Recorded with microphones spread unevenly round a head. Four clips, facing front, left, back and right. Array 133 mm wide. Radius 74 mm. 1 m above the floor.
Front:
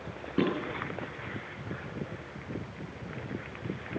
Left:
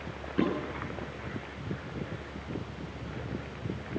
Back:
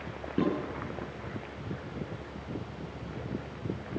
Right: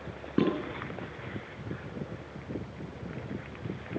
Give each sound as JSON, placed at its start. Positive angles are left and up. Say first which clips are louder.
{"t": 0.4, "sound": "dishes clattering", "louder": "right 2 dB, front 1 dB", "azimuth_deg": -115, "distance_m": 9.0}